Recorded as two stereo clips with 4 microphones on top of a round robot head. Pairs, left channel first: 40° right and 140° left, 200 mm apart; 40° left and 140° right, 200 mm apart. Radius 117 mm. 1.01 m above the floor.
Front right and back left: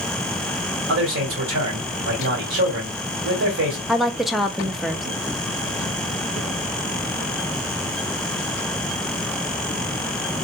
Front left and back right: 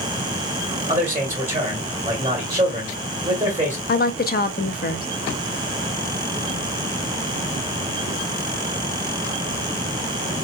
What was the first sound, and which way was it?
A man speaking, 155° left.